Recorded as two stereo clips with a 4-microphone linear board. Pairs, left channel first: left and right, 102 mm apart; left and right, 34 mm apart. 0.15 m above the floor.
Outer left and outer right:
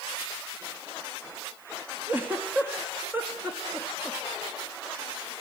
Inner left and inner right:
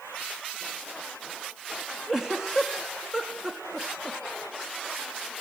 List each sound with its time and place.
2.1 s a giggle: 20° right (ahead or behind), 3 m